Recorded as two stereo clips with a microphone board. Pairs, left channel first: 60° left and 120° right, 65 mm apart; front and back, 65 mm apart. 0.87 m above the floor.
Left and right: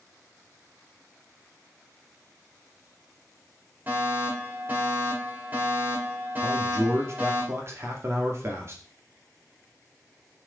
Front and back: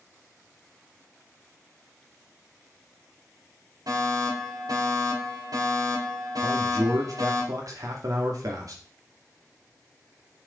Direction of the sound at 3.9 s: 175° right.